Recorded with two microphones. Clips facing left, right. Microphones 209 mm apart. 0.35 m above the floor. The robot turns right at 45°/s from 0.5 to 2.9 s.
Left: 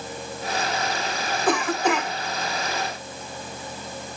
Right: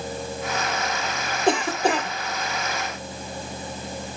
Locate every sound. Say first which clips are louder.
1.5 s a cough: right 1 dB; 25° right (ahead or behind), 1.6 m; by 2.1 s 35° right (ahead or behind), 1.6 m